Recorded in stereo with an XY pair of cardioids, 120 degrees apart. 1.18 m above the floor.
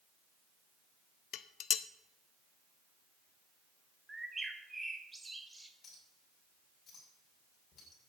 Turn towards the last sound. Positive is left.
turn(degrees=50)